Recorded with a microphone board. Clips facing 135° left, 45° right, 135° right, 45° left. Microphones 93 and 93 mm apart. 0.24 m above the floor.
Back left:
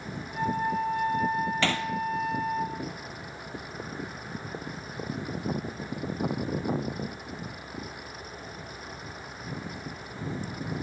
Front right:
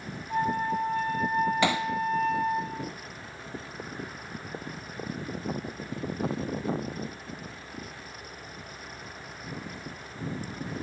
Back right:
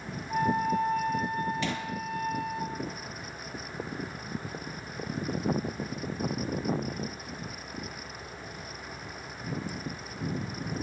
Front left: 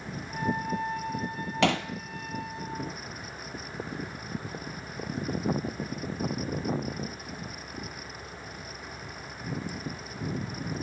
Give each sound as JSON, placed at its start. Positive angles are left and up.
{"t": 0.3, "sound": "a flute", "azimuth_deg": -90, "distance_m": 8.0}
{"t": 1.6, "sound": "hammering", "azimuth_deg": 30, "distance_m": 1.6}